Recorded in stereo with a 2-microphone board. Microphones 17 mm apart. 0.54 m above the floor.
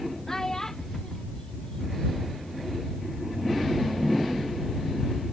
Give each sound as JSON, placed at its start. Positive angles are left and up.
{"t": 0.3, "sound": "a child speaking", "side_deg": 30}